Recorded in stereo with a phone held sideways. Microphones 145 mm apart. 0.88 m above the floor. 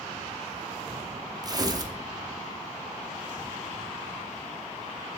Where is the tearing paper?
30° right (ahead or behind), 0.9 m.